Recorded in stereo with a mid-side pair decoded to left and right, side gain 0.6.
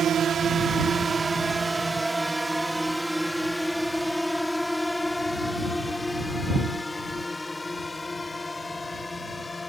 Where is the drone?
45° right; by 9.7 s 20° left.